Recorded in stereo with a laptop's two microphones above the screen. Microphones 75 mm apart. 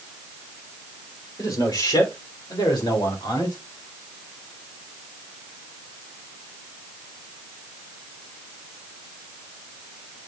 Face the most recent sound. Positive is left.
turn(degrees=80)